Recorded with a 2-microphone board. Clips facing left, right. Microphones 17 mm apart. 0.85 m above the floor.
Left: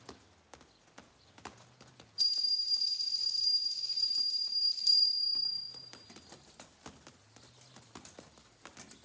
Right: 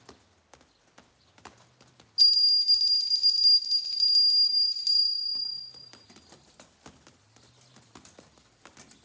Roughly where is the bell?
Right.